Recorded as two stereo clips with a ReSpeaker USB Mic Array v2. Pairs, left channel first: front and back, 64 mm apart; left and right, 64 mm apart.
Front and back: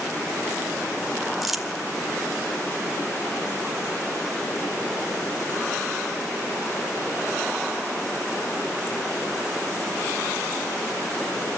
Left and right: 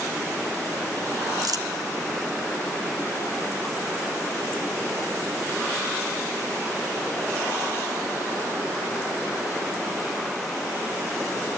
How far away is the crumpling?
About 1.9 m.